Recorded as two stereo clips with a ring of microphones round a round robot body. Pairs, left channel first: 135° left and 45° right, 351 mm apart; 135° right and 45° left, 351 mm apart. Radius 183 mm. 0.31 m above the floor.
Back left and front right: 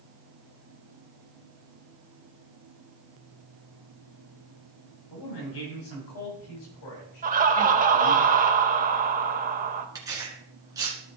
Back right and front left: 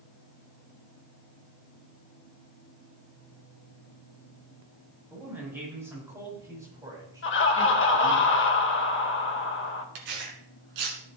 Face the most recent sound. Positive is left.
turn(degrees=35)